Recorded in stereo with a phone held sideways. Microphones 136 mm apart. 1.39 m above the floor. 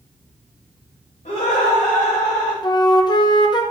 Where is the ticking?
I don't hear ticking.